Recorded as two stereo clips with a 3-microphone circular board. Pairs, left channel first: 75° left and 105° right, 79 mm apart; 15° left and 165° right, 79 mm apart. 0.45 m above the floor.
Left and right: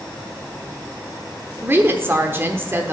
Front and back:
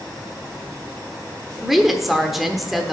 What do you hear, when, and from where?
1.6 s a woman speaking: 80° right, 0.9 m